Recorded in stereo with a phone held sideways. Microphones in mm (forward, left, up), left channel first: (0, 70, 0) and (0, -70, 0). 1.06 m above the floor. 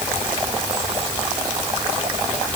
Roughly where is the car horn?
No car horn in this recording.